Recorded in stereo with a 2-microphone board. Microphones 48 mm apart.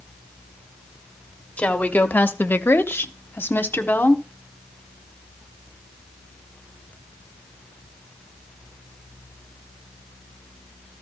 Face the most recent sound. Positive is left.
turn(degrees=40)  # may be behind; listen again after turning